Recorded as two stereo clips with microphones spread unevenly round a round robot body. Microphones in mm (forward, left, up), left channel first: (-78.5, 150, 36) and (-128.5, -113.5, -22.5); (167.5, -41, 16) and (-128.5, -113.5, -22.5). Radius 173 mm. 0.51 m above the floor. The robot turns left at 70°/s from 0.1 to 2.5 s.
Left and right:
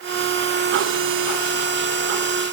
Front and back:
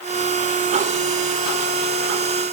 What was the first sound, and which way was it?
Only background noise.